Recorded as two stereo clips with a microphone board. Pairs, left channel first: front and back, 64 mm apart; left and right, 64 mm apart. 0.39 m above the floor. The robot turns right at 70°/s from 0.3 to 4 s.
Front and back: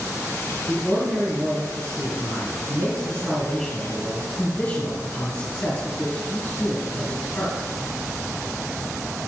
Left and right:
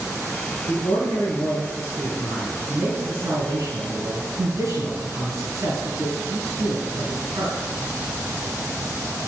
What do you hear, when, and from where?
0.7 s a man speaking: 70° left, 4 m; by 7.5 s 55° right, 4 m